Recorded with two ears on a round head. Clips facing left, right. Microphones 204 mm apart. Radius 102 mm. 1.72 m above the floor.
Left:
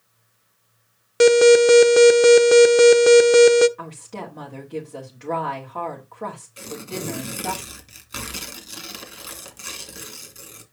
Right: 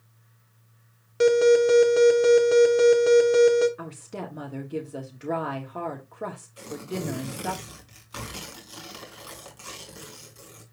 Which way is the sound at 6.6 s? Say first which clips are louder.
Even; 30° left (ahead or behind).